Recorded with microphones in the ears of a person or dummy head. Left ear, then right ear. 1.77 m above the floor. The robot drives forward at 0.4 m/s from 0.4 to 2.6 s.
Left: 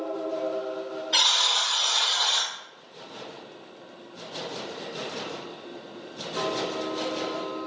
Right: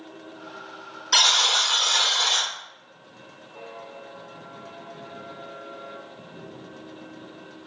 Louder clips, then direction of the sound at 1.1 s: Right 3 dB; 40° right (ahead or behind).